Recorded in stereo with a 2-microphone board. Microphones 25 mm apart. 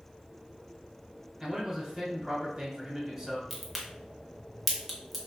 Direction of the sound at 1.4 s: 20° right (ahead or behind).